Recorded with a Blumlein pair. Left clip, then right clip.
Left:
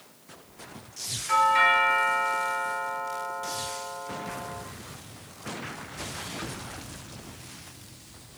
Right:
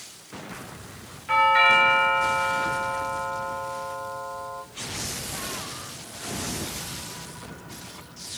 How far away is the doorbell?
About 1.6 m.